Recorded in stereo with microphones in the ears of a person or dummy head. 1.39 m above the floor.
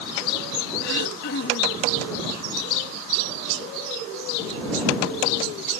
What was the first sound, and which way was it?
Throat clearing, 60° left (ahead or behind).